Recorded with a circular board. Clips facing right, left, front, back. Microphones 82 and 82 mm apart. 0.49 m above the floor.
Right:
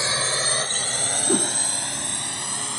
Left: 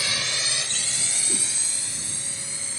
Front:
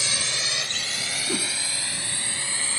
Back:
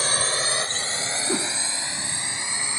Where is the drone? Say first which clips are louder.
Right 5 dB, back 5 dB; 145° right; by 2.8 s 110° right.